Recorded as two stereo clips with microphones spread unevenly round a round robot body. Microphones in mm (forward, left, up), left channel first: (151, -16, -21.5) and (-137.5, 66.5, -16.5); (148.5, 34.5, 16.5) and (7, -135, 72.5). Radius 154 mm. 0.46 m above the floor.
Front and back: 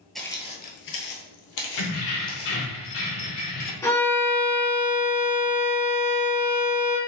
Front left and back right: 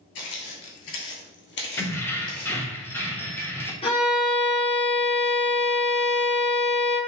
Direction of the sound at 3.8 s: 55° left.